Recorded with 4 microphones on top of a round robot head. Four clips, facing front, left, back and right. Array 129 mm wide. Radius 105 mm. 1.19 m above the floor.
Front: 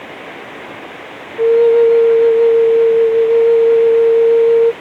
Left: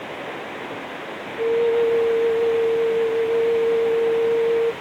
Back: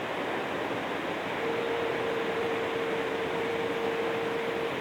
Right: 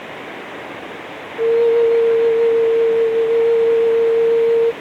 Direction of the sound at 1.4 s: 5° right.